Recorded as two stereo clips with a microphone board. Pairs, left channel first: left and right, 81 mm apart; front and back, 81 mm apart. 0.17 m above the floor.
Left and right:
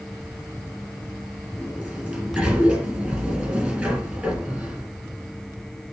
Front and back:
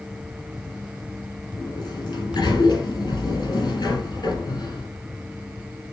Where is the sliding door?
20° right, 2.5 m.